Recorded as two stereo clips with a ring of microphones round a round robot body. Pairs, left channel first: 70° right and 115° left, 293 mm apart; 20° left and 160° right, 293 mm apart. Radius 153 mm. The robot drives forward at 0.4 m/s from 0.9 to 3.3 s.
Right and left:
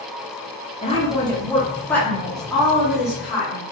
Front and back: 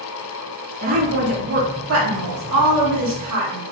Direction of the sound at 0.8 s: 125° right.